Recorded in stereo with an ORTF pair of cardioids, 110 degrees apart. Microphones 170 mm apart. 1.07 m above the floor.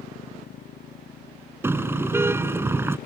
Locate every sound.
0.0 s a motorcycle: 50° left; by 3.1 s 60° left
1.6 s a car horn: 15° right